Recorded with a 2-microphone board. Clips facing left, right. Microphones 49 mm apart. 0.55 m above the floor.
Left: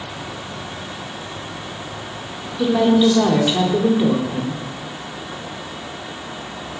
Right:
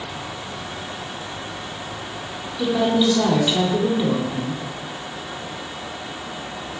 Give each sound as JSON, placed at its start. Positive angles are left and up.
{"t": 2.6, "sound": "a woman speaking", "side_deg": 20, "distance_m": 1.1}